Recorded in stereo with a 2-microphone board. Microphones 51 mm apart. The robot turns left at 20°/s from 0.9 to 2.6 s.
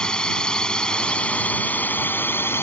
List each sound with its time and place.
0.0 s a drone: 160° left; by 2.6 s 125° left